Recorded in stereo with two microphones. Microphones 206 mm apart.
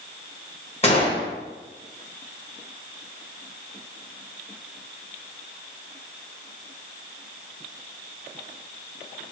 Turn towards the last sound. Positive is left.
turn(degrees=30)  # may be behind; listen again after turning